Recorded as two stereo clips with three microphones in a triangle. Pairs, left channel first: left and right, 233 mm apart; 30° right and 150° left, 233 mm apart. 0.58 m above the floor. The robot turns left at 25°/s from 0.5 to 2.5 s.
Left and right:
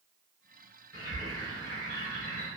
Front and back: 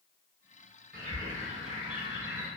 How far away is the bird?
About 1.2 m.